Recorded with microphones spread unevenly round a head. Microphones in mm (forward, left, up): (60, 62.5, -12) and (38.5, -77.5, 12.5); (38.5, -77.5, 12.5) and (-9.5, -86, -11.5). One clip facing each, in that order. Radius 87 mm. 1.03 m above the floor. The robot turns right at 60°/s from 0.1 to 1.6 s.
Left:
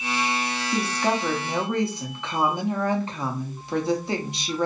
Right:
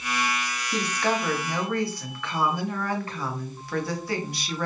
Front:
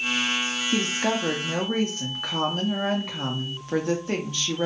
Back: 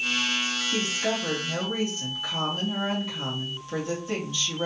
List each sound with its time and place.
0.7 s a woman speaking: 15° left, 0.5 m; by 4.7 s 65° left, 0.5 m